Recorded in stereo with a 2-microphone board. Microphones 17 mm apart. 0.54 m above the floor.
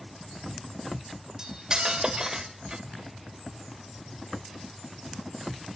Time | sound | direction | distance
1.4 | cutlery clinking | 40° right (ahead or behind) | 0.9 m